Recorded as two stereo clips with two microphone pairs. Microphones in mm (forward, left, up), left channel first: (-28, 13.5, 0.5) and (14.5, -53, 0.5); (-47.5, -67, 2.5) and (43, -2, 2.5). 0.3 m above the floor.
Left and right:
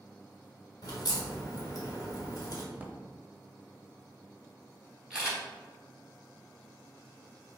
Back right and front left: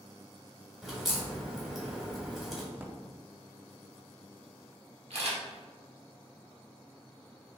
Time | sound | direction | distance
0.8 | a crack | 125° left | 1.3 m
2.7 | a drawer | 20° right | 0.5 m
5.1 | a camera shutter | 25° left | 1.7 m